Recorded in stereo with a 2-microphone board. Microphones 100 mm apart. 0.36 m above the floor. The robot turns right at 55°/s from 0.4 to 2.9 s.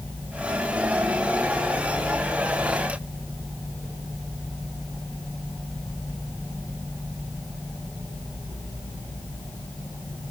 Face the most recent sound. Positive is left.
No sound to turn to.